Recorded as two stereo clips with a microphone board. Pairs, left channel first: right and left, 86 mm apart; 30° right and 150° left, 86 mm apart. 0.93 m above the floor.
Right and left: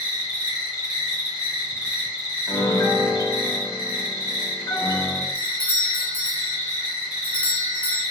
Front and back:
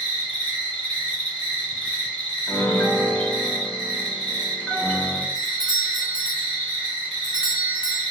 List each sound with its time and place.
0.0 s an insect: 15° left, 1.5 m
2.5 s a piano: 95° right, 0.6 m
5.3 s a doorbell: 145° right, 0.7 m